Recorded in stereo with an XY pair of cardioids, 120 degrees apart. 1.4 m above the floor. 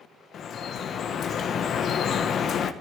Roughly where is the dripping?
Ahead left.